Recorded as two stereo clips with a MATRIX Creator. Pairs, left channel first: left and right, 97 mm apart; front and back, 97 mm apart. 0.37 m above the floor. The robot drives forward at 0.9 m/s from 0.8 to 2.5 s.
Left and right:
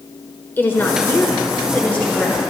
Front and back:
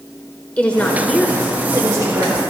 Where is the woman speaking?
55° left, 1.1 m; by 2.4 s 160° left, 1.6 m.